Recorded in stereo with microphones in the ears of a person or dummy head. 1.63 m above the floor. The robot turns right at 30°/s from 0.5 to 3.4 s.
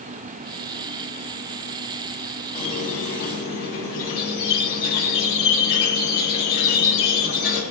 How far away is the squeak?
About 1.4 m.